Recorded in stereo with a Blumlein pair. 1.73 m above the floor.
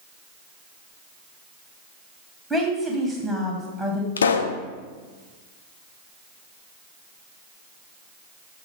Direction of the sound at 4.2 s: 70° left.